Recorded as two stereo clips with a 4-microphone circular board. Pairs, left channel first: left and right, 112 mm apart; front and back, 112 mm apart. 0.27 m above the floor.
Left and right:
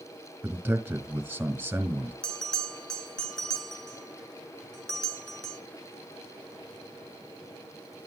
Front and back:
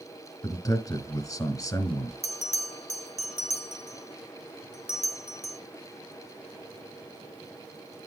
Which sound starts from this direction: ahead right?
A man speaking, at 0.4 s.